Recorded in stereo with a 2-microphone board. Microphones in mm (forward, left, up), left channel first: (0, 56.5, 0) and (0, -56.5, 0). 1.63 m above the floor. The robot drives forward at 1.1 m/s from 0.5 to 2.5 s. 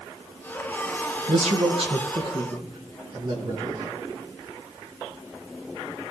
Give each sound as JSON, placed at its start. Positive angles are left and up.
{"t": 1.3, "sound": "a man speaking", "side_deg": -75, "distance_m": 1.6}